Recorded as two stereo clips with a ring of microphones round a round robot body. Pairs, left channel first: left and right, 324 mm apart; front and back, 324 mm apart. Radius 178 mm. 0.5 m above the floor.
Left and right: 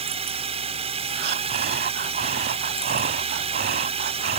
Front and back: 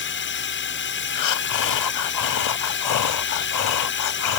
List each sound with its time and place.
0.0 s a drone: 25° right
1.1 s breathing: 25° right